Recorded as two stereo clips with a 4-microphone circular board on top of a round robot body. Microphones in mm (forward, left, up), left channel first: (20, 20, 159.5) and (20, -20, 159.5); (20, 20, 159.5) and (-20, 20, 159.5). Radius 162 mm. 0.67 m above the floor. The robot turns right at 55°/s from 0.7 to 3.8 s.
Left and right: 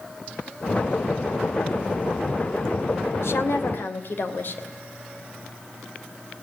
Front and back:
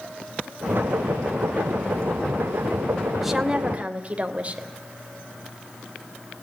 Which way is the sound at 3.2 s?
90° left.